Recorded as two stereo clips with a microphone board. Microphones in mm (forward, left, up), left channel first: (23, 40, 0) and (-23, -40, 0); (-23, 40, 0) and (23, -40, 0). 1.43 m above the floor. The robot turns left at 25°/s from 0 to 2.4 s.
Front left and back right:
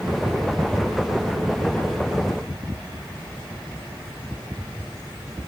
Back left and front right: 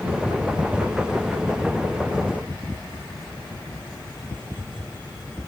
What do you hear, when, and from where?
Only background noise.